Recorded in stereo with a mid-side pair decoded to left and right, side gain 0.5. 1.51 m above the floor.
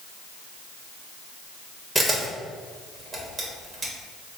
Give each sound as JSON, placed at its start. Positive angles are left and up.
{"t": 1.9, "sound": "a camera shutter", "azimuth_deg": -25, "distance_m": 1.4}